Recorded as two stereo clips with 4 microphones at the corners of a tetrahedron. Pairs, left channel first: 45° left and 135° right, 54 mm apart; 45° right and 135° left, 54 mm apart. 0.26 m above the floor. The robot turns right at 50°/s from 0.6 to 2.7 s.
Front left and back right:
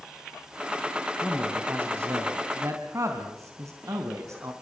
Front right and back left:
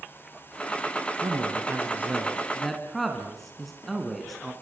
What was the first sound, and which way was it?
A man speaking, 155° left.